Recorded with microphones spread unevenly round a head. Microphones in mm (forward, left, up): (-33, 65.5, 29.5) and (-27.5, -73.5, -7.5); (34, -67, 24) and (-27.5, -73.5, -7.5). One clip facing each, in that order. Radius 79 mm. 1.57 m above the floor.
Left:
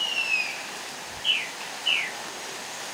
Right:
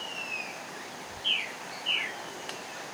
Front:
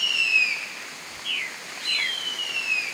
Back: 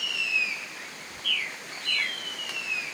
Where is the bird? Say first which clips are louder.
Left 2 dB, back 1 dB; 50° left, 3 m.